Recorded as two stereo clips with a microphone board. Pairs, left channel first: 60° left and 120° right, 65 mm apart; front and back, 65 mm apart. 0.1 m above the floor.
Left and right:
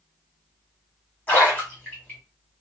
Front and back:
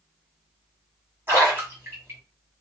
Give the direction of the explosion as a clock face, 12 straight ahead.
I don't hear an explosion.